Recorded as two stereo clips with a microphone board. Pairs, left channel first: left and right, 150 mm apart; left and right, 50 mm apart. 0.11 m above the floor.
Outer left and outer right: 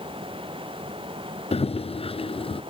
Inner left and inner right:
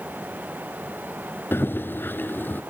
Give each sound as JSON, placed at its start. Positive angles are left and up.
{"t": 1.5, "sound": "running footsteps", "side_deg": 40}